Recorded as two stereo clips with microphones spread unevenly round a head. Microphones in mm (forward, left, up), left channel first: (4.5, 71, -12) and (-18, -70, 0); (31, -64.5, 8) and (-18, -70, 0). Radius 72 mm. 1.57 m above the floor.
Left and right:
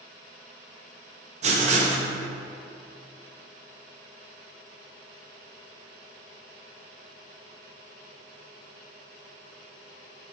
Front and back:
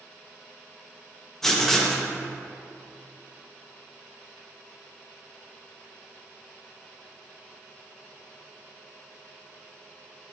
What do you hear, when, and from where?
1.4 s writing: 70° right, 1.2 m